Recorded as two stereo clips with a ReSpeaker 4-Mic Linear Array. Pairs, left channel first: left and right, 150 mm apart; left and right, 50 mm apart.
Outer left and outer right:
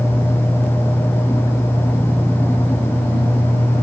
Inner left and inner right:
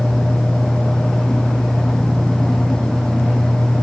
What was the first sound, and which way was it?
Only background noise.